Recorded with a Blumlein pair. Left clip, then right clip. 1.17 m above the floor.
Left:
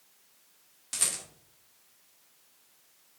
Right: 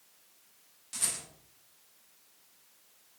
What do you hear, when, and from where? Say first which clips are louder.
0.9 s a rattle: left 3 dB; 65° left, 2.5 m